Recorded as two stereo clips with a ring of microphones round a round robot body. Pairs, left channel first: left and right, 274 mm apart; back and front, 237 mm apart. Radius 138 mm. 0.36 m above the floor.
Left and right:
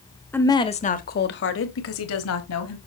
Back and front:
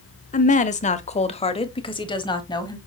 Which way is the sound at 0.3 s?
170° left.